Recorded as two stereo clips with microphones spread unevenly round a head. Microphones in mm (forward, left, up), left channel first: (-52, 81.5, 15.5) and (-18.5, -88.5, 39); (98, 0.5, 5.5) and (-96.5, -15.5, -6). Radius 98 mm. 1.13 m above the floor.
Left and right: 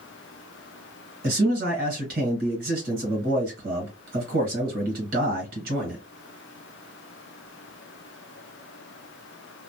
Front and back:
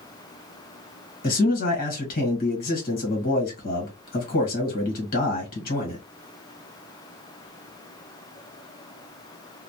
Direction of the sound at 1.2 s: 40° right.